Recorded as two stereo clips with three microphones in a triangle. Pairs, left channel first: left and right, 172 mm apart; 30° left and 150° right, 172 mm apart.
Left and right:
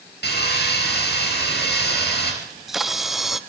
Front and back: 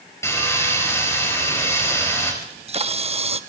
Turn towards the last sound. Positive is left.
turn(degrees=180)